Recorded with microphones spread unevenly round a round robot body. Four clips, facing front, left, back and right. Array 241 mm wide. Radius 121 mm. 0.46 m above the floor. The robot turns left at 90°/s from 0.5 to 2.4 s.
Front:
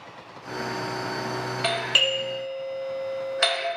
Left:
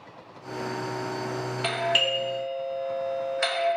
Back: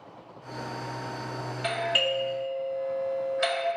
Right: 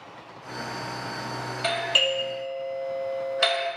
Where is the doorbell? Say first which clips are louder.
Even, back 1 dB; 60° left, 1.1 m; by 3.7 s 10° right, 1.1 m.